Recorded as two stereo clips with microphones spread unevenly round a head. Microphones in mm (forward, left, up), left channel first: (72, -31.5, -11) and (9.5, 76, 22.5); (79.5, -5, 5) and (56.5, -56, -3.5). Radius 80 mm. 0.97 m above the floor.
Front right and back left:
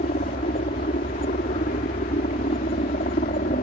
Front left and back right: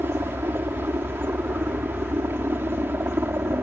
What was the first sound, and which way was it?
A helicopter, 75° right.